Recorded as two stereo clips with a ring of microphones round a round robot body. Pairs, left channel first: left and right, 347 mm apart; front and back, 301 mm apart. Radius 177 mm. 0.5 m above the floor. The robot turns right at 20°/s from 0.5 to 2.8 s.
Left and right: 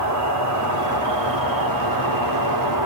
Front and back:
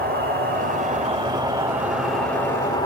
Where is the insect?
120° right, 1.7 m; by 2.9 s 75° right, 1.7 m.